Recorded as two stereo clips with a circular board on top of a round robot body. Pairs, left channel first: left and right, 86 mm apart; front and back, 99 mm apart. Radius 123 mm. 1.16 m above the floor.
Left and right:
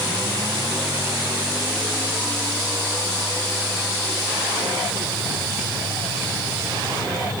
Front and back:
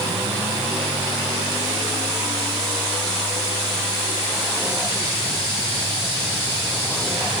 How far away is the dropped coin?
No dropped coin in this recording.